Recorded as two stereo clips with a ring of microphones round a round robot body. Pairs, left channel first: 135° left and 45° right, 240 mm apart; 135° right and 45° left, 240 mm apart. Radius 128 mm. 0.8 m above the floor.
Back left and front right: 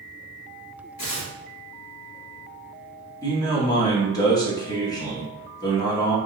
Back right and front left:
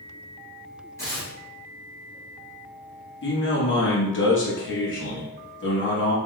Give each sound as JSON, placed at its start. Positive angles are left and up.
{"t": 1.0, "sound": "tearing paper", "azimuth_deg": 150, "distance_m": 1.8}
{"t": 3.2, "sound": "a man speaking", "azimuth_deg": -155, "distance_m": 1.3}